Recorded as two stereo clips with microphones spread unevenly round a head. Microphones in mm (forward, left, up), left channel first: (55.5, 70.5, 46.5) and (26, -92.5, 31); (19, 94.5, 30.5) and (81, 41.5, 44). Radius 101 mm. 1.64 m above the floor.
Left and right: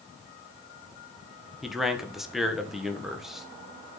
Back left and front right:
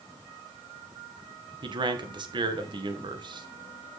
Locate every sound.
1.6 s a man speaking: 10° right, 1.9 m